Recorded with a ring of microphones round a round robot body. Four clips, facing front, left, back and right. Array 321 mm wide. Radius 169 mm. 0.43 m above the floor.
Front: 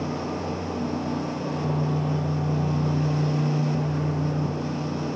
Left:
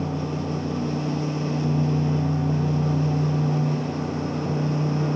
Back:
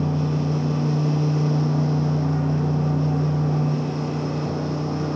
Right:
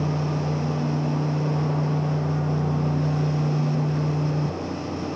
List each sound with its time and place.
Only background noise.